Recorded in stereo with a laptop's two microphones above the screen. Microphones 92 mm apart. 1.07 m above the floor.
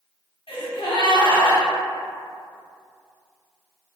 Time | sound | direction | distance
0.5 | a gasp | 70° left (ahead or behind) | 1.0 m